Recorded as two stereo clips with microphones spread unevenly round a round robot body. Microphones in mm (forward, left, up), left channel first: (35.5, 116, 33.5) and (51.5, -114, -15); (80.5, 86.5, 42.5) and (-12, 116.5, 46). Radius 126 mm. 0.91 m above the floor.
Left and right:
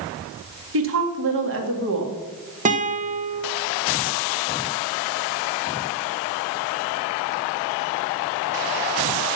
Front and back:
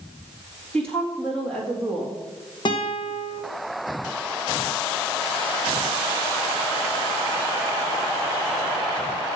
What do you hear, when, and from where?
0.7 s a woman speaking: 100° right, 1.8 m
2.6 s a guitar: 45° right, 1.4 m